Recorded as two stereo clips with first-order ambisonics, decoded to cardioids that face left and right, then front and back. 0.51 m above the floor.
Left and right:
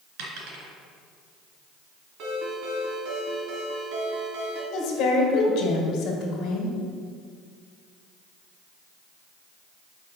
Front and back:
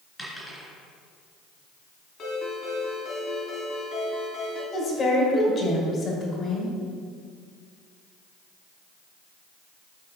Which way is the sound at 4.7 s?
60° left.